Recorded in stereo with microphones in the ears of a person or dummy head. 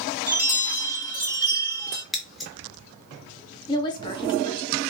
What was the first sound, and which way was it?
A chime, 10° right (ahead or behind).